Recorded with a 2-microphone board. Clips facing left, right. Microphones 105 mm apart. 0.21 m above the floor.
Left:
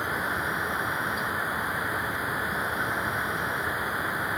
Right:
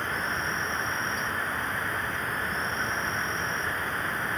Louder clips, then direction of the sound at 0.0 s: Left 1 dB; 10° left (ahead or behind).